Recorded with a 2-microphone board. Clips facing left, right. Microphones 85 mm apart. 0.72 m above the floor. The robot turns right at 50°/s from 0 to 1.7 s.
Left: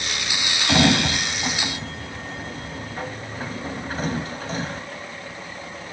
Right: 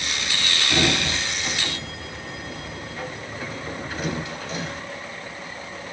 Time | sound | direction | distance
0.7 | a sliding door | 90° left | 2.5 m